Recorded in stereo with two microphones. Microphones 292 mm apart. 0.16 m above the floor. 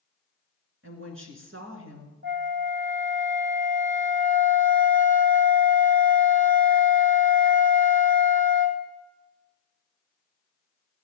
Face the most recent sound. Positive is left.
turn(degrees=-40)  # may be behind; listen again after turning